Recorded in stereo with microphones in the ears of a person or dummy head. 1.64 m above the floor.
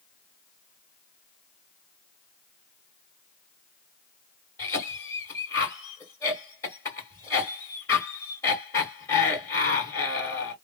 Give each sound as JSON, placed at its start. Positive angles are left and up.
{"t": 4.6, "sound": "a cough", "side_deg": 15, "distance_m": 2.0}